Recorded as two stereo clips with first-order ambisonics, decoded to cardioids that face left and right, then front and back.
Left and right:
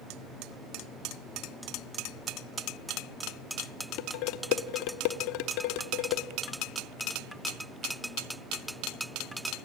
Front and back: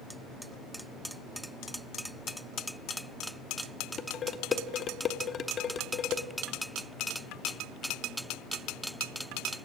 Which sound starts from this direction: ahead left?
Dishes clattering, at 4.0 s.